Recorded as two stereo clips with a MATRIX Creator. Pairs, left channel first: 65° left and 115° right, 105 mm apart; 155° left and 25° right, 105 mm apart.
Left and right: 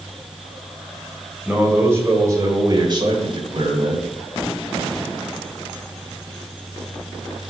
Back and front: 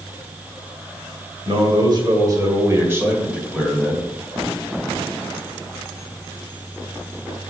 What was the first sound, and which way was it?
A man speaking, 40° right.